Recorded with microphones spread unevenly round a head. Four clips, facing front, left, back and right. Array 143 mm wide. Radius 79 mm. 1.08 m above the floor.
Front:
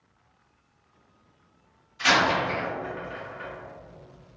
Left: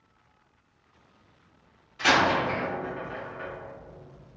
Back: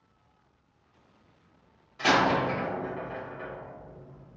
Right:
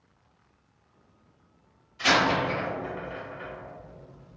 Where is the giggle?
I don't hear a giggle.